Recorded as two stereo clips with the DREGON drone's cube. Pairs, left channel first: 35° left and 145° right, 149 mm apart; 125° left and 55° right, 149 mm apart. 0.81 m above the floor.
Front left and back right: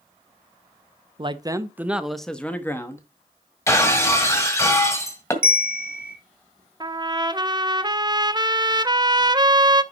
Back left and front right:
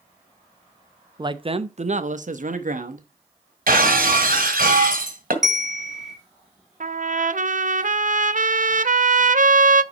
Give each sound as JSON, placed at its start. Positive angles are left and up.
{"t": 1.2, "sound": "a man speaking", "azimuth_deg": -105, "distance_m": 0.7}
{"t": 3.7, "sound": "breaking glass", "azimuth_deg": -35, "distance_m": 1.7}
{"t": 5.4, "sound": "a bell", "azimuth_deg": -145, "distance_m": 1.3}
{"t": 6.8, "sound": "a trumpet", "azimuth_deg": -85, "distance_m": 0.6}